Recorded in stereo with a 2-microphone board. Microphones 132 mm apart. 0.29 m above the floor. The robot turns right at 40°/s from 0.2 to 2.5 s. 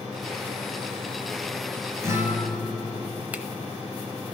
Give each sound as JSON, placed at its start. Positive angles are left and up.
{"t": 2.0, "sound": "a guitar", "side_deg": -25, "distance_m": 2.5}
{"t": 3.3, "sound": "a finger snap", "side_deg": -15, "distance_m": 0.8}